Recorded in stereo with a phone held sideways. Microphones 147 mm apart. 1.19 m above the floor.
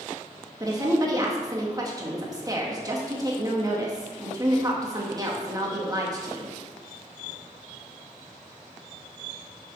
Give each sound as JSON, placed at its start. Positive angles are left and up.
{"t": 0.6, "sound": "a woman speaking", "side_deg": -25, "distance_m": 1.8}